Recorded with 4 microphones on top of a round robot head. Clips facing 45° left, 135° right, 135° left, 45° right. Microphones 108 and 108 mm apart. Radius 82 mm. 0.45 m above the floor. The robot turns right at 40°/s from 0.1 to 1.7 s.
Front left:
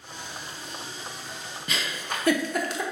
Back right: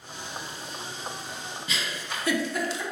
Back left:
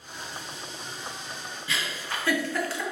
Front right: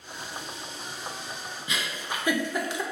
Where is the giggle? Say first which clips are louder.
Front left 3 dB, even; 20° left, 0.5 m; by 2.8 s 25° left, 0.5 m.